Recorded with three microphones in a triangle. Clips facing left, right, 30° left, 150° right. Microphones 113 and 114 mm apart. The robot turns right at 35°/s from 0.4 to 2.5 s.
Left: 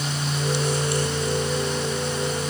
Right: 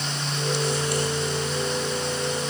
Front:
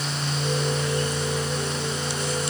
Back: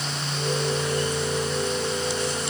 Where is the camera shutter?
No camera shutter in this recording.